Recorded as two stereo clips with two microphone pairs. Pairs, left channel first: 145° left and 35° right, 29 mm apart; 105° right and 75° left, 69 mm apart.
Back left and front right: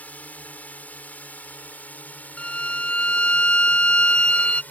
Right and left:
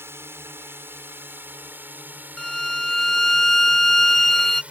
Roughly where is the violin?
Behind.